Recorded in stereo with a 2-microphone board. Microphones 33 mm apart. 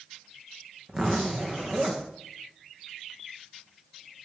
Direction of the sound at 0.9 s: 25° right (ahead or behind).